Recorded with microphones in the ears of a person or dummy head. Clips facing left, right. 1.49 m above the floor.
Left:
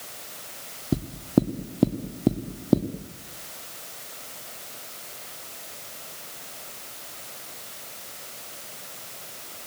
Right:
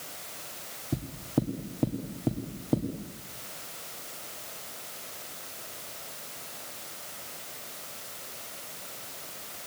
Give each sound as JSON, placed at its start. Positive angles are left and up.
{"t": 0.9, "sound": "knocking", "side_deg": 75, "distance_m": 3.0}